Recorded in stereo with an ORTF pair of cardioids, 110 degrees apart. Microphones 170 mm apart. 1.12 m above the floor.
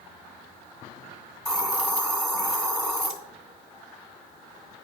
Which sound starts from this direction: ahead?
A hiss, at 1.4 s.